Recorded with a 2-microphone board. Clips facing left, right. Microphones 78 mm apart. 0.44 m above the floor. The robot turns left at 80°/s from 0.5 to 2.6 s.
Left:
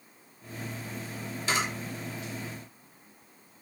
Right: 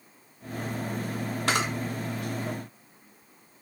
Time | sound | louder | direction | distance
1.5 | a camera shutter | right 2 dB | 70° right (ahead or behind) | 0.5 m